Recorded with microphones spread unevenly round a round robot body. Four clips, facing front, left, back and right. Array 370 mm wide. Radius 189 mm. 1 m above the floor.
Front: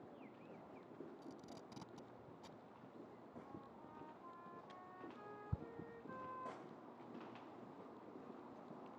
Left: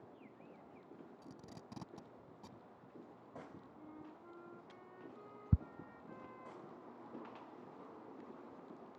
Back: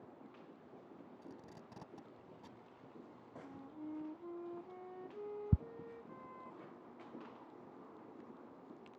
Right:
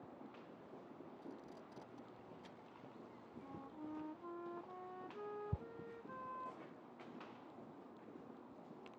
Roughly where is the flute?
Behind.